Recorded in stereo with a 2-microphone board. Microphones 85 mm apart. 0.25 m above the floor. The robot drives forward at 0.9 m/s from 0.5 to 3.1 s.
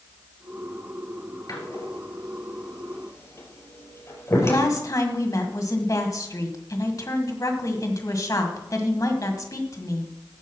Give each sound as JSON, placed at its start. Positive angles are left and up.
{"t": 1.5, "sound": "a door slam", "side_deg": 45, "distance_m": 3.5}
{"t": 4.4, "sound": "a woman speaking", "side_deg": 45, "distance_m": 1.9}